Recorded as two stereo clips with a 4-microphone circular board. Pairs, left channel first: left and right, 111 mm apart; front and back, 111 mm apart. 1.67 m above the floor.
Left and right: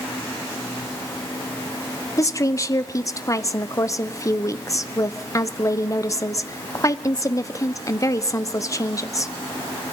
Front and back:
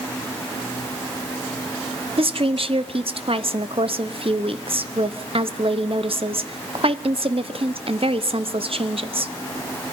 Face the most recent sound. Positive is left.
turn(degrees=150)